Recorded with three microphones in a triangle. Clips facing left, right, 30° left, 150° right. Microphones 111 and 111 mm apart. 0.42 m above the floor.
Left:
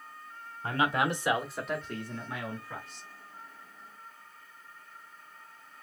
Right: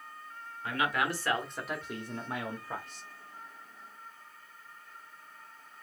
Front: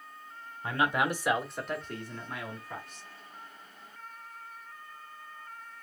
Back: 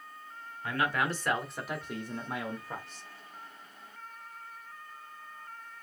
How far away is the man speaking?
About 1.0 m.